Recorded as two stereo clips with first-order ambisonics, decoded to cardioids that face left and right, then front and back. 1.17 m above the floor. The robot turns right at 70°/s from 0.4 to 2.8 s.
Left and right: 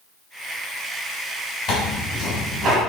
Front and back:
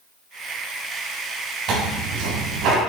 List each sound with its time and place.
1.7 s tearing paper: 145° left, 4 m; by 2.8 s 140° right, 4 m